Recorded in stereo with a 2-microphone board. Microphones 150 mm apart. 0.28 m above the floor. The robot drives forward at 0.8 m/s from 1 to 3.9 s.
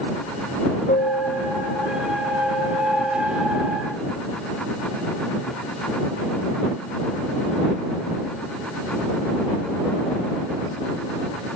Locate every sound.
0.9 s a piano: 65° left (ahead or behind), 3.5 m; by 3.2 s 45° left (ahead or behind), 4.5 m